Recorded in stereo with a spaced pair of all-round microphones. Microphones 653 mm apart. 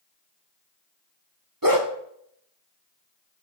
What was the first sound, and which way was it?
A dog barking, 30° right (ahead or behind).